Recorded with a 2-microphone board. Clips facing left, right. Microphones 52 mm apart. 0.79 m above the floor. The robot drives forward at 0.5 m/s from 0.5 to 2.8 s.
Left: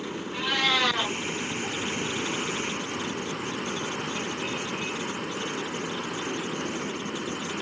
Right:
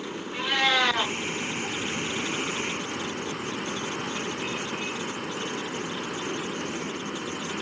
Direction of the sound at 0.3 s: 10° right (ahead or behind).